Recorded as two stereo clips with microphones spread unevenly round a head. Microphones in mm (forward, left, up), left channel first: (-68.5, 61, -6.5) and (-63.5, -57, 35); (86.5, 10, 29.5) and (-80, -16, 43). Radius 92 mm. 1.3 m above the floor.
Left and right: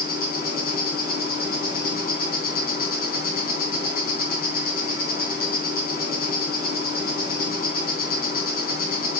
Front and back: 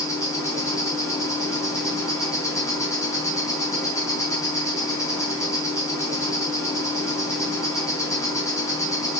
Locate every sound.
0.0 s an insect: 85° left, 3.5 m